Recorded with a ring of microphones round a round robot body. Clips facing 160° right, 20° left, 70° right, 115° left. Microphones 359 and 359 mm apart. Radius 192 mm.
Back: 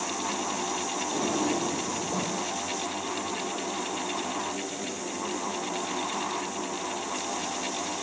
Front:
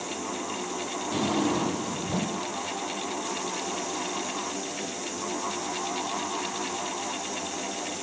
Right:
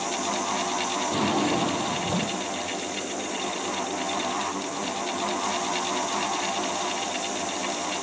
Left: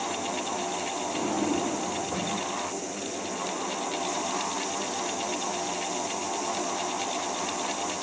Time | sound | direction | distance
1.1 | a drawer | 35° right | 4.5 m